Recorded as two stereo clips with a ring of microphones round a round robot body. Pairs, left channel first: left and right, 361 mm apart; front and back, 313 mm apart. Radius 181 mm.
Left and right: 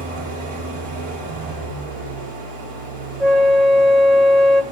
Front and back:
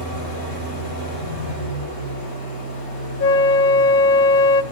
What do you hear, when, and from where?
0.0 s an engine running: 45° right, 7.5 m
3.2 s a flute: straight ahead, 0.6 m